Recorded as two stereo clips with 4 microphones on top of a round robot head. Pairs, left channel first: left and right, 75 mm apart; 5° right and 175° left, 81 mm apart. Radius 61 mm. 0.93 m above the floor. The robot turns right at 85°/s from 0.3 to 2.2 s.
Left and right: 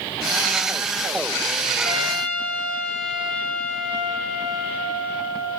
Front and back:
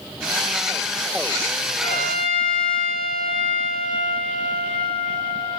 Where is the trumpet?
10° right, 7.5 m; by 5.6 s 20° left, 7.5 m.